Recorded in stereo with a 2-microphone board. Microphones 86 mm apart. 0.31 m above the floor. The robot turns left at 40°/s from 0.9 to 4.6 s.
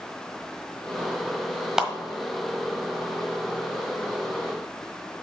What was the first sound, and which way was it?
A clap, 5° right (ahead or behind).